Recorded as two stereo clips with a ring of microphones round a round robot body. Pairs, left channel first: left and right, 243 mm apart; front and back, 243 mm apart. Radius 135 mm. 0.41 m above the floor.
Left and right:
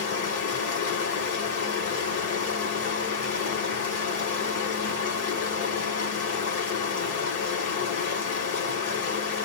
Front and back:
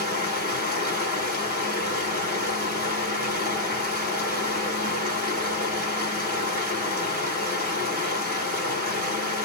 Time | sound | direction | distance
0.0 | running water | 140° left | 1.5 m